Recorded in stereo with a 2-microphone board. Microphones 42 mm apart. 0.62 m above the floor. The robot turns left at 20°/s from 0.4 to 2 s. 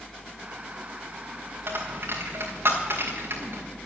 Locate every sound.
1.7 s a dropped coin: 65° right (ahead or behind), 3.5 m; by 3.6 s 70° right (ahead or behind), 3.5 m